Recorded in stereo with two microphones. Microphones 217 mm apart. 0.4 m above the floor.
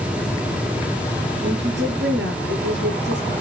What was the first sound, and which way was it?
A woman speaking, 55° right (ahead or behind).